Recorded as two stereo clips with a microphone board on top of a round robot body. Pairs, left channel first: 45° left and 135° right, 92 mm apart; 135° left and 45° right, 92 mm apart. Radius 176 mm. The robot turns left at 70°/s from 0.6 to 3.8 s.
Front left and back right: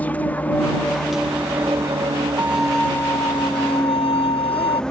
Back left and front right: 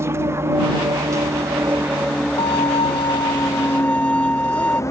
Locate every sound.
0.0 s an aircraft: 15° right; by 4.9 s 120° left
2.4 s a violin: 155° left; by 4.8 s 55° left